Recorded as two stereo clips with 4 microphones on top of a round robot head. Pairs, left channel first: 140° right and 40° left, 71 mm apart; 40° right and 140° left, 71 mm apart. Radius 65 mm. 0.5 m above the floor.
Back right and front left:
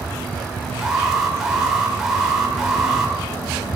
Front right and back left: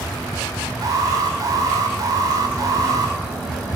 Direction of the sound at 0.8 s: 120° left.